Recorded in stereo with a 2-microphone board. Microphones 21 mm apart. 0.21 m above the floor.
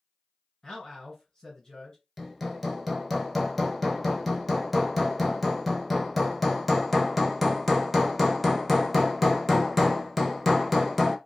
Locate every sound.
0.6 s a man speaking: 25° left (ahead or behind), 1.9 m
2.2 s hammering: centre (ahead or behind), 0.7 m